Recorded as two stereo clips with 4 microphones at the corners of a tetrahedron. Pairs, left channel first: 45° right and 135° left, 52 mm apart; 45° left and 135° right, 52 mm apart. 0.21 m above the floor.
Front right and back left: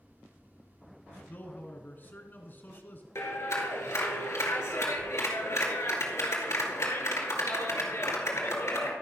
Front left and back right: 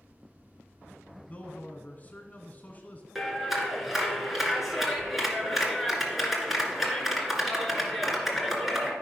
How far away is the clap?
About 2 m.